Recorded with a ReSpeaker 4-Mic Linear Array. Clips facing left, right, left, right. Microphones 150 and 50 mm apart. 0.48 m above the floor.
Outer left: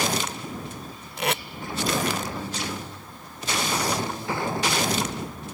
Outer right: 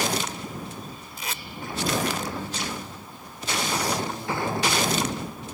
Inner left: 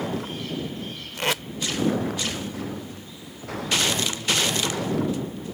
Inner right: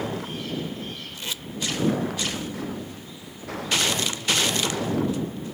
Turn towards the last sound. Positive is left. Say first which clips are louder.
# outer left 11 dB, inner left 11 dB
turn(degrees=70)  # may be behind; listen again after turning